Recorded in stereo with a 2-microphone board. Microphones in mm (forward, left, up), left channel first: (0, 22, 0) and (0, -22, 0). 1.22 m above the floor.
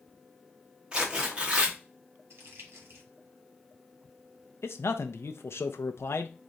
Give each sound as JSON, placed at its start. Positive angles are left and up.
{"t": 0.9, "sound": "tearing paper", "side_deg": -20, "distance_m": 0.9}
{"t": 2.3, "sound": "crumpling", "side_deg": -65, "distance_m": 1.3}
{"t": 4.6, "sound": "a man speaking", "side_deg": 75, "distance_m": 0.6}